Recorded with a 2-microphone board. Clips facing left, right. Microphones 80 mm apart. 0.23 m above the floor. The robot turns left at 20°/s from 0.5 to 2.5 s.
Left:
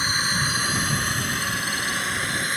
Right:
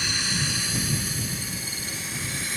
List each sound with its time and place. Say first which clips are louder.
0.0 s a drone: left 5 dB; 40° left (ahead or behind); by 2.6 s 55° left (ahead or behind)